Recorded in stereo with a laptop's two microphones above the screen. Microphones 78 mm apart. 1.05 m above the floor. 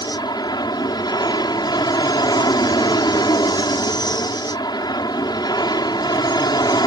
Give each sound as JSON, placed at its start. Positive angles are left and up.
{"t": 0.0, "sound": "an aircraft", "side_deg": 65}